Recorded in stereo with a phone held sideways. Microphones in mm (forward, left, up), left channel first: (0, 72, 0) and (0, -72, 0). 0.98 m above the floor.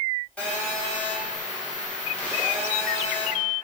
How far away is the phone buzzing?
About 0.7 m.